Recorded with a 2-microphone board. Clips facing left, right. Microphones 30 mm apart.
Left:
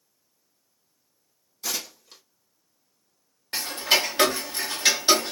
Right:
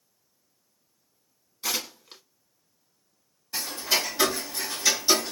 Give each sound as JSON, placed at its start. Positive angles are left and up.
{"t": 1.6, "sound": "tearing paper", "side_deg": -25, "distance_m": 1.1}
{"t": 3.5, "sound": "ticking", "side_deg": 60, "distance_m": 0.8}